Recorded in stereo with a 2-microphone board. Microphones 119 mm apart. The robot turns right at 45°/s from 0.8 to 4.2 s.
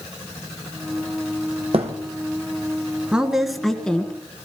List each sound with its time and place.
1.7 s a thud: 55° right (ahead or behind), 2 m; by 1.9 s 60° right (ahead or behind), 2 m
3.1 s a woman speaking: 10° right (ahead or behind), 1.6 m; by 4.1 s 10° left (ahead or behind), 1.6 m